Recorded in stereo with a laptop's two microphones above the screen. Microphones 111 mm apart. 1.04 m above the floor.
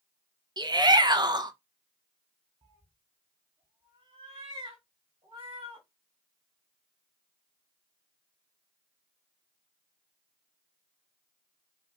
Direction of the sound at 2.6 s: 50° right (ahead or behind).